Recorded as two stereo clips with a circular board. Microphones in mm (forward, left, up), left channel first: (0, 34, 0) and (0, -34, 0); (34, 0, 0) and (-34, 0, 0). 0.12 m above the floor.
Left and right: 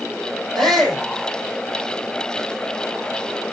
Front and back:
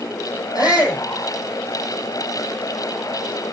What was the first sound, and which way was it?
A shout, 5° left.